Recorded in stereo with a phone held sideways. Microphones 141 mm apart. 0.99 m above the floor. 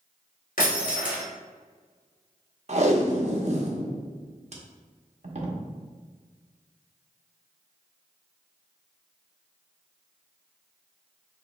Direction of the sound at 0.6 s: 70° left (ahead or behind).